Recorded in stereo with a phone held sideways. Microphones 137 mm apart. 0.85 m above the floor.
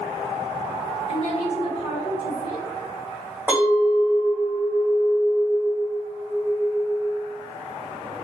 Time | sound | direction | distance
1.1 | a woman speaking | 45° left (ahead or behind) | 1.6 m
3.5 | a clink | 15° right (ahead or behind) | 1.5 m